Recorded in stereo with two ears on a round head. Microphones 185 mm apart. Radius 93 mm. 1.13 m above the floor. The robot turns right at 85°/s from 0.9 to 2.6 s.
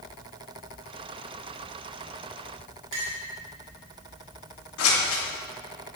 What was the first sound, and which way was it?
A clink, 70° right (ahead or behind).